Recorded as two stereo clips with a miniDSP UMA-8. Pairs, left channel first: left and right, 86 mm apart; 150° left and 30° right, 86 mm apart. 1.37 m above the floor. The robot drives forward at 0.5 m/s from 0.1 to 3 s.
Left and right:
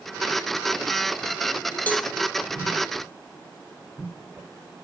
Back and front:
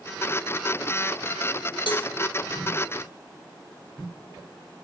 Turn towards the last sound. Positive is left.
turn(degrees=165)